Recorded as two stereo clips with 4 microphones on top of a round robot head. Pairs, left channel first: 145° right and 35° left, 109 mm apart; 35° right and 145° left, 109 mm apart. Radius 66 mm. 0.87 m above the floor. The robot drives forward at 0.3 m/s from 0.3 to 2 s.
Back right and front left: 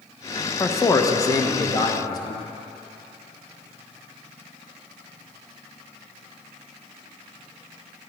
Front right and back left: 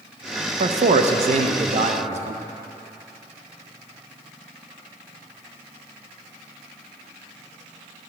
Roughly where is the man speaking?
Behind left.